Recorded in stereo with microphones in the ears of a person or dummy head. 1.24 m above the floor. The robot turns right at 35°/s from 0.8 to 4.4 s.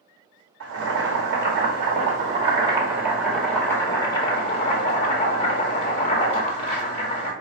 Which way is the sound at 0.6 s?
90° right.